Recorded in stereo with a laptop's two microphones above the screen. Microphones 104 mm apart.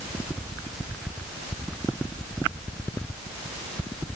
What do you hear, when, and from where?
Only background noise.